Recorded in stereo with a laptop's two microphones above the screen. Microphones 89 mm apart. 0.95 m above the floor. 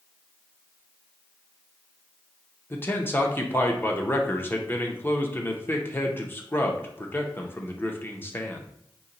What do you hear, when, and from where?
2.7 s a man speaking: 25° left (ahead or behind), 0.5 m